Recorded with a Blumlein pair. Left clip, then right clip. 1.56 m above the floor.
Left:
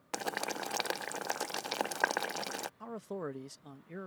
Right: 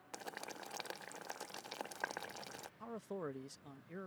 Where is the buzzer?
No buzzer in this recording.